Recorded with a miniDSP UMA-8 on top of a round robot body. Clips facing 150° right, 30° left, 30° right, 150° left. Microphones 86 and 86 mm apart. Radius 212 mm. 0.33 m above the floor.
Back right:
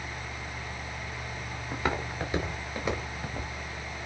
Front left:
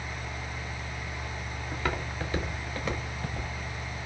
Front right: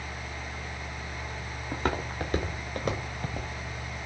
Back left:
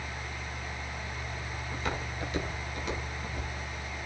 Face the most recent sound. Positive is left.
turn(degrees=-70)